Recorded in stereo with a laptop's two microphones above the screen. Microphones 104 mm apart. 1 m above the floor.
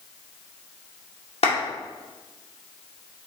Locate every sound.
1.4 s a clap: 75° left (ahead or behind), 2 m